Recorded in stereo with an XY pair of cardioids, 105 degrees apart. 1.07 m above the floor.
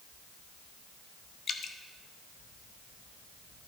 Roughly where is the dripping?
Ahead left.